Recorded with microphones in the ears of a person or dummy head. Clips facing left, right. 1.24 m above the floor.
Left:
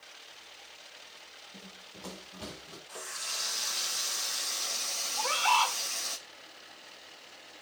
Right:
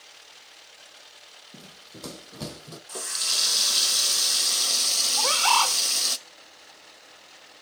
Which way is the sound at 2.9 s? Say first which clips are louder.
Right 6 dB; 55° right (ahead or behind).